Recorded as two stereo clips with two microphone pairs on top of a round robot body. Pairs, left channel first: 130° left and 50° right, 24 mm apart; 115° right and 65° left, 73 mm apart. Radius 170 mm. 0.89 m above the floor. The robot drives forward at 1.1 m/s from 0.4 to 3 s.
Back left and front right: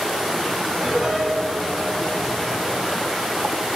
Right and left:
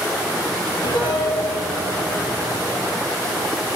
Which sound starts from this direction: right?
A piano, at 0.8 s.